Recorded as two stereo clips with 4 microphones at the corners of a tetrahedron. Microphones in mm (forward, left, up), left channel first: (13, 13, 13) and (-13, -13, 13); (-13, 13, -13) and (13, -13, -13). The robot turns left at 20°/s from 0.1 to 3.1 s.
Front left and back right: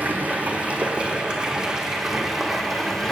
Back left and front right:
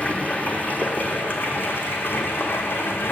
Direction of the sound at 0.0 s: 175° right.